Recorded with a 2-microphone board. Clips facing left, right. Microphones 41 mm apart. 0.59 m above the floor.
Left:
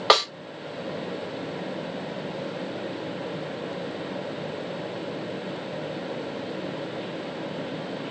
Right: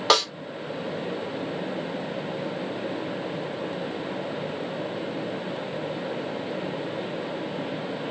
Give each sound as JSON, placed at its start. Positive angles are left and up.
{"t": 0.1, "sound": "a snare drum", "side_deg": 15, "distance_m": 1.2}